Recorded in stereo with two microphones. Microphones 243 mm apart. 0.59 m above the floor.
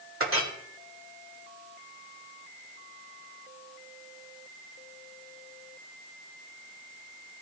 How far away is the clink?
About 1.6 m.